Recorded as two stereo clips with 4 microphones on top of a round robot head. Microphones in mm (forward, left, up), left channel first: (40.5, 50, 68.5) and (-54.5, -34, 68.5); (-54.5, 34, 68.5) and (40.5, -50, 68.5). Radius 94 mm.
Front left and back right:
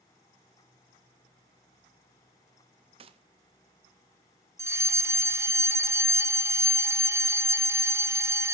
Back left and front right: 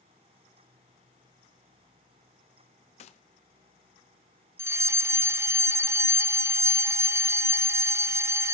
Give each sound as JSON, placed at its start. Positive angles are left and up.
{"t": 3.0, "sound": "a gunshot", "azimuth_deg": 175, "distance_m": 0.6}
{"t": 4.6, "sound": "a fire alarm", "azimuth_deg": -90, "distance_m": 0.8}